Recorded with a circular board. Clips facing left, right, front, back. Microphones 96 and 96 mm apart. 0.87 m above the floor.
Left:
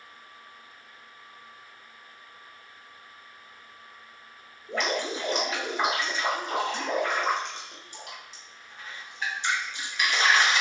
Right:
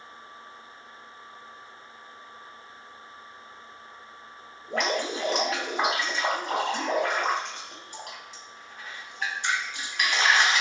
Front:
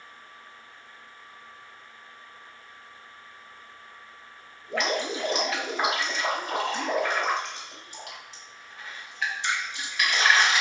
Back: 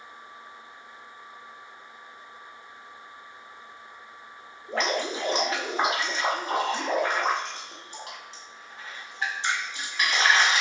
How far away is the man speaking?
I don't hear a man speaking.